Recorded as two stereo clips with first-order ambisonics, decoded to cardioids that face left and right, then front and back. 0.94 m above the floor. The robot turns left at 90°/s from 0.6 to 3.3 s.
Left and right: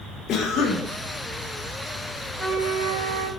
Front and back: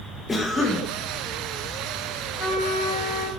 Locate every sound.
0.3 s a cough: 70° left, 0.9 m; by 0.9 s 45° left, 0.9 m
2.4 s a trumpet: 25° left, 3.5 m; by 3.3 s 55° right, 3.5 m